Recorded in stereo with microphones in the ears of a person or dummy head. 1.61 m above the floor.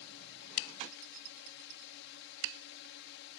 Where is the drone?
65° left (ahead or behind).